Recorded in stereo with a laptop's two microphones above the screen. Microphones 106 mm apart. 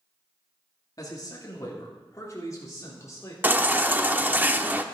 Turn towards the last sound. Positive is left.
turn(degrees=-20)  # may be behind; listen again after turning